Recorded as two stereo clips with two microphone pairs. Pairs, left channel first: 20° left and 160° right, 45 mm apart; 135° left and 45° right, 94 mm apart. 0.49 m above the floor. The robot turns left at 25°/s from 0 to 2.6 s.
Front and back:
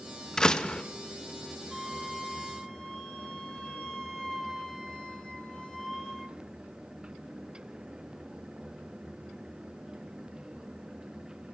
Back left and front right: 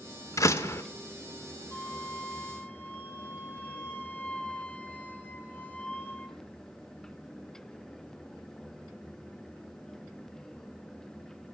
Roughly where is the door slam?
Left.